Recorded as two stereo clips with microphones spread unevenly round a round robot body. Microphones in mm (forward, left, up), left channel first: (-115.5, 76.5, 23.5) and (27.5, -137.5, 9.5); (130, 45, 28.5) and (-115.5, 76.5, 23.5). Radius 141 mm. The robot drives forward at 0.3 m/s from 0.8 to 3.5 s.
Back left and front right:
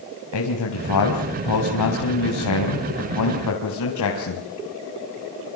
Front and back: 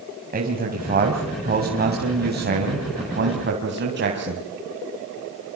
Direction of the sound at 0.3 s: 120° left.